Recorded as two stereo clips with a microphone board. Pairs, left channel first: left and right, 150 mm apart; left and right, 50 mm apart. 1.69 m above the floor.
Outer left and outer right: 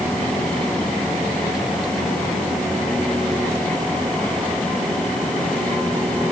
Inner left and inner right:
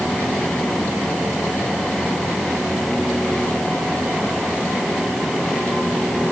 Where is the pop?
No pop in this recording.